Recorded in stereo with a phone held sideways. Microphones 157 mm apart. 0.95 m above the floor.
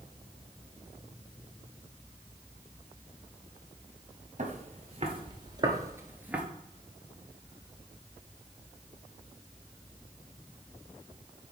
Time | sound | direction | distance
4.4 | footsteps | 50° right (ahead or behind) | 1.3 m